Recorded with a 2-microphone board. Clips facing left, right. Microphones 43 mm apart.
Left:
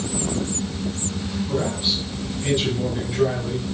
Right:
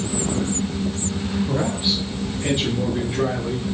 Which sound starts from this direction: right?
A man speaking, at 1.5 s.